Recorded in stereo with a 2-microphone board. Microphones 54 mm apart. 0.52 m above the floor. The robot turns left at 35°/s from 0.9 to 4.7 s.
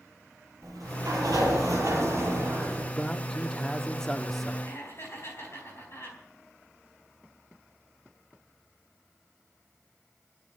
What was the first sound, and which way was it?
A sliding door, 75° right.